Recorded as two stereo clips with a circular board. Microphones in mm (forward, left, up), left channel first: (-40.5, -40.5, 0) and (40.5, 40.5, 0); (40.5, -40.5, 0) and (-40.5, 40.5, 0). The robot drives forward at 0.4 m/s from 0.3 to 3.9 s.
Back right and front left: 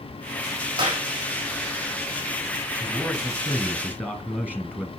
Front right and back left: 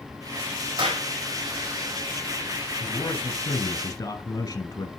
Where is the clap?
95° left, 4.5 m.